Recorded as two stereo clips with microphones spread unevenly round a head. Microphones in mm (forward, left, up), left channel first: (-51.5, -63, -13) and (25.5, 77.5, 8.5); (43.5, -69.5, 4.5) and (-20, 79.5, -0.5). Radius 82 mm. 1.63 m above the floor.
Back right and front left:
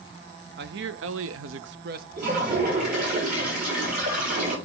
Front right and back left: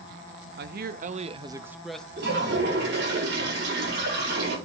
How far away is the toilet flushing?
About 8 m.